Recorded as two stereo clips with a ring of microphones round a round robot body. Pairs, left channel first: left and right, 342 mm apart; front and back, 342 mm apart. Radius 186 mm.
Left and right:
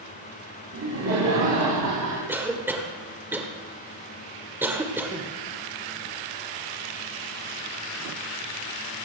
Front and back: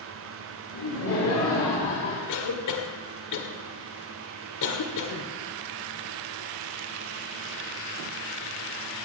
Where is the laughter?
45° right, 4 m; by 2.2 s 65° right, 3.5 m.